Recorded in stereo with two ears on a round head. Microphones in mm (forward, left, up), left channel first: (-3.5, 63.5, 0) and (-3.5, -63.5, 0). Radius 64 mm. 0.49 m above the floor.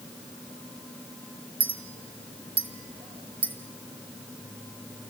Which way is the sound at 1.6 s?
40° right (ahead or behind).